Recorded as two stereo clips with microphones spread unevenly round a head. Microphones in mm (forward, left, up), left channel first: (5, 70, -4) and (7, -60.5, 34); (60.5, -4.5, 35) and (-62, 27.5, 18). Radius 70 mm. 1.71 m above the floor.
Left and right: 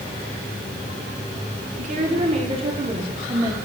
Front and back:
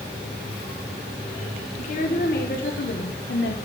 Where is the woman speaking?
55° right, 1.9 m; by 3.6 s 15° right, 1.5 m.